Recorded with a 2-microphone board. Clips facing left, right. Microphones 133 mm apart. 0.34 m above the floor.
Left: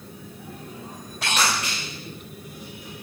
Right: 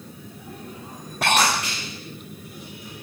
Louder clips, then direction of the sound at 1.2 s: Right 4 dB; 55° right (ahead or behind).